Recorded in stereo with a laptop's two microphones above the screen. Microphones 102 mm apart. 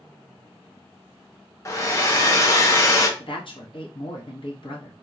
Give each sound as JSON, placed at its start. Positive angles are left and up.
{"t": 1.6, "sound": "a hair dryer", "side_deg": 30, "distance_m": 0.6}
{"t": 3.2, "sound": "a woman speaking", "side_deg": 55, "distance_m": 1.0}